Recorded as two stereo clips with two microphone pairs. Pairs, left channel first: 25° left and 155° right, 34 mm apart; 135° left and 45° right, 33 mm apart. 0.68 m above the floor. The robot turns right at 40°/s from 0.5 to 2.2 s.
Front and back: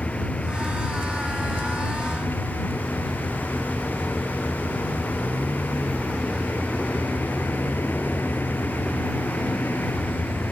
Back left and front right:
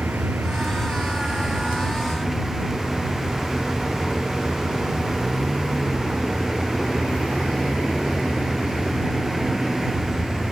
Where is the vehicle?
30° right; by 10.5 s 40° left.